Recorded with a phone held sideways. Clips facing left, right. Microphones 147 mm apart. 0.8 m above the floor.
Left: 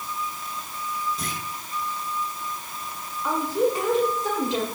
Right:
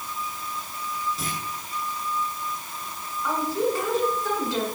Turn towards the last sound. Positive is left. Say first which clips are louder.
# left 2 dB
turn(degrees=20)  # may be behind; listen again after turning